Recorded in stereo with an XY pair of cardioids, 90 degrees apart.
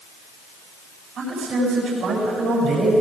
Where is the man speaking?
65° right, 9.5 m.